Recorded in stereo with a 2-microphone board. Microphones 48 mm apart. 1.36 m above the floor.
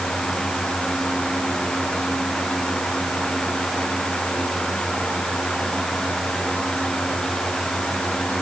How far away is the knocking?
No knocking in this recording.